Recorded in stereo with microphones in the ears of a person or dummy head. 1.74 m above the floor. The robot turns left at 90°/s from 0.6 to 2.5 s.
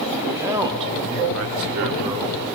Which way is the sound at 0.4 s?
20° right.